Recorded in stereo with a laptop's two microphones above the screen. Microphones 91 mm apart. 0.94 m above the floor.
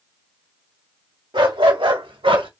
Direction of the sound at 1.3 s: 65° right (ahead or behind).